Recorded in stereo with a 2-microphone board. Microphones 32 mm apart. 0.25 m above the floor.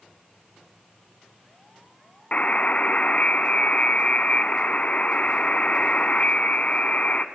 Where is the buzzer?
50° left (ahead or behind), 0.8 m.